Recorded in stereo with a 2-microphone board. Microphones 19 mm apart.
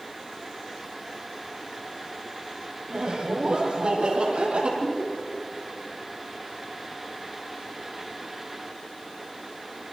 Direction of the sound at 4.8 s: 75° left (ahead or behind).